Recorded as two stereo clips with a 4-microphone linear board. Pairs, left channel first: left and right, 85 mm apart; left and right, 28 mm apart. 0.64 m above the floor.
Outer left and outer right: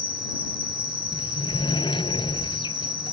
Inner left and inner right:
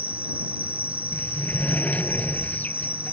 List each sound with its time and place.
0.0 s an insect: 65° right (ahead or behind)
1.1 s a sliding door: 65° left (ahead or behind)